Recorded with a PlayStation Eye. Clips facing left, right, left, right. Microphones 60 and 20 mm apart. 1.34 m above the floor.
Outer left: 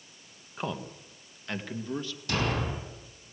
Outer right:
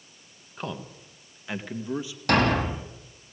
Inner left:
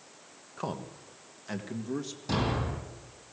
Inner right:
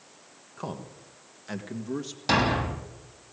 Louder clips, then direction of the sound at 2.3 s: Outer right 8 dB, inner right 7 dB; 60° right (ahead or behind).